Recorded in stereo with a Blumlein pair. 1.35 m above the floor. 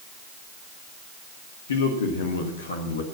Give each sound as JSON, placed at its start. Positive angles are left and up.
{"t": 1.7, "sound": "a man speaking", "azimuth_deg": 65, "distance_m": 1.7}